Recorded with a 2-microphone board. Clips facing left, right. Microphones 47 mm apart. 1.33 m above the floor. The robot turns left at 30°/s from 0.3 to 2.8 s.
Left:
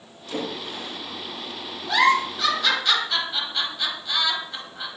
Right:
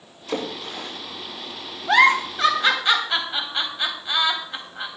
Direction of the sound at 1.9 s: 55° right (ahead or behind).